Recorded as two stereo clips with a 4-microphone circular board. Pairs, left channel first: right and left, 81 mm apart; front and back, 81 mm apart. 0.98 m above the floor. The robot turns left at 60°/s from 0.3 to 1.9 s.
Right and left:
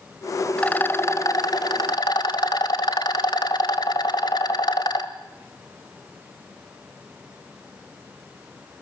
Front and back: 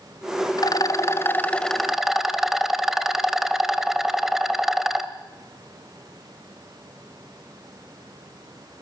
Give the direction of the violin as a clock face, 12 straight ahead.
I don't hear a violin.